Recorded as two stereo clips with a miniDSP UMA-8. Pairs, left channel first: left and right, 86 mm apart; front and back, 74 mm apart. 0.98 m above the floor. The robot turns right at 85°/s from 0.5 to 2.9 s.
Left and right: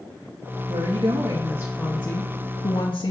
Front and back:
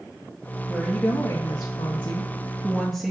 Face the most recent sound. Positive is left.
turn(degrees=100)